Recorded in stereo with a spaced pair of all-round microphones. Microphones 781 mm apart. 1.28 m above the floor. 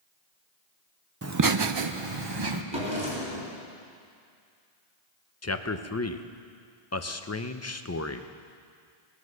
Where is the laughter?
20° right (ahead or behind), 0.7 m; by 2.6 s 30° right (ahead or behind), 1.0 m.